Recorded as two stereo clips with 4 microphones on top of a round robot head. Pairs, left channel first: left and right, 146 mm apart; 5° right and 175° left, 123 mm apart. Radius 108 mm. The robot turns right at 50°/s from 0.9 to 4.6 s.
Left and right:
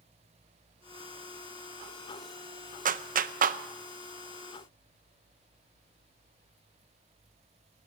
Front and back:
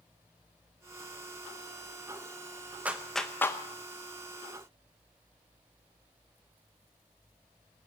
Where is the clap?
105° right, 0.7 m; by 3.6 s 70° right, 0.7 m.